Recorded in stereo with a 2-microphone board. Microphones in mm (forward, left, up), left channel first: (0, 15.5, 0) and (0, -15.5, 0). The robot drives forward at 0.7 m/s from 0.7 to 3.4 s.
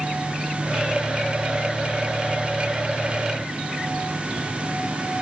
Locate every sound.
Only background noise.